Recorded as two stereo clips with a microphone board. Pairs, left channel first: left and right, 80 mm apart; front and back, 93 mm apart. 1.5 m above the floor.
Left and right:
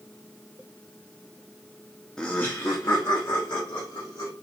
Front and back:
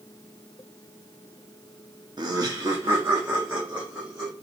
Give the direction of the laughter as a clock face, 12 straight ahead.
6 o'clock.